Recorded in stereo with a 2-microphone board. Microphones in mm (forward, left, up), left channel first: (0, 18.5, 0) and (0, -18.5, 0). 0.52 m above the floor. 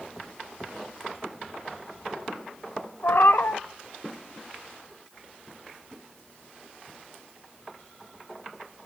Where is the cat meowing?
80° left, 0.7 m.